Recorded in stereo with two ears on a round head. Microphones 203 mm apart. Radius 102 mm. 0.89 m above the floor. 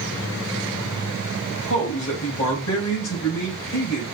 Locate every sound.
1.5 s a man speaking: 70° left (ahead or behind), 3.5 m